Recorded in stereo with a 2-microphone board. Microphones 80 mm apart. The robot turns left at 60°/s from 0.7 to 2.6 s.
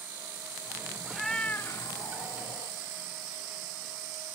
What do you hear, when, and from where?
1.1 s a cat meowing: 175° right, 1.4 m; by 2.8 s 90° left, 1.4 m